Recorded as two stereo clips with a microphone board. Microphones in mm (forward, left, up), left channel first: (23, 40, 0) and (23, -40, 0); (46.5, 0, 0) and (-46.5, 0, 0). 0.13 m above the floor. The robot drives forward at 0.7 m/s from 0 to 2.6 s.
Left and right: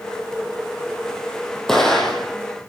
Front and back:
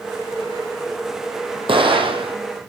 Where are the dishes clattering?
I don't hear dishes clattering.